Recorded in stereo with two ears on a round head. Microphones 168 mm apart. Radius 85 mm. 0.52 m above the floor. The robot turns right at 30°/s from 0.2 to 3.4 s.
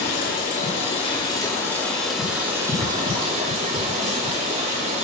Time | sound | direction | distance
0.0 | running water | 125° left | 4.5 m